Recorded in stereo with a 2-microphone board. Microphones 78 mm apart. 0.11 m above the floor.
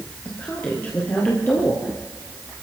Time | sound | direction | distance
0.2 | a woman speaking | 25° left (ahead or behind) | 3 m